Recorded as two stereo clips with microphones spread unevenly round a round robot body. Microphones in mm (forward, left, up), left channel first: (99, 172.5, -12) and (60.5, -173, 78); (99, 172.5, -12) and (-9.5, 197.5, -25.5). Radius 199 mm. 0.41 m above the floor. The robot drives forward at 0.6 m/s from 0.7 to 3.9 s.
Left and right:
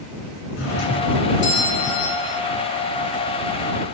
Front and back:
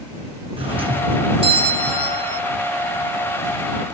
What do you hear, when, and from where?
0.6 s a doorbell: 135° left, 5.5 m; by 2.4 s 145° left, 6.5 m